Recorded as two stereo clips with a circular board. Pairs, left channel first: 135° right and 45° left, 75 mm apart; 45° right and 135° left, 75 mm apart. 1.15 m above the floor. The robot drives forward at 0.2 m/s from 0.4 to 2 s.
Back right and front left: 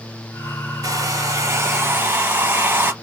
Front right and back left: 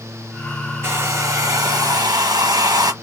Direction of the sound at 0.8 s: 80° left.